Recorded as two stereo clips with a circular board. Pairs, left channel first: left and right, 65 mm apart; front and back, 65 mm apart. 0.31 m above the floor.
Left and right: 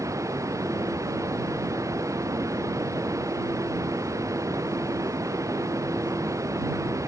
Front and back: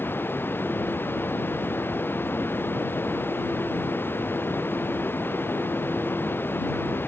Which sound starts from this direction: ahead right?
Running water, at 0.0 s.